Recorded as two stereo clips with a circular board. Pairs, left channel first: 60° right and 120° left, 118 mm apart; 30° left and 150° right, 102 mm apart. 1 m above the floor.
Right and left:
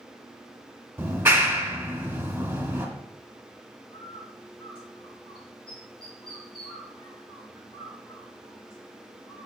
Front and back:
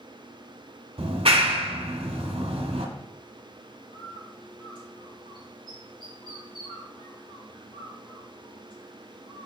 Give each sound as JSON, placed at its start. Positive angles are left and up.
{"t": 1.0, "sound": "a clap", "azimuth_deg": -170, "distance_m": 1.3}
{"t": 3.9, "sound": "a bird", "azimuth_deg": -15, "distance_m": 3.0}